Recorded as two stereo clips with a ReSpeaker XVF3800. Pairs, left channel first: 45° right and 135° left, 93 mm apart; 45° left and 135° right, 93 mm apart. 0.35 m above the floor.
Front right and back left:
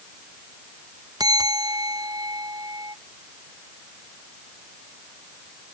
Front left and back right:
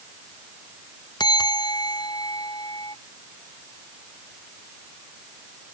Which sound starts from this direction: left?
A bell, at 1.2 s.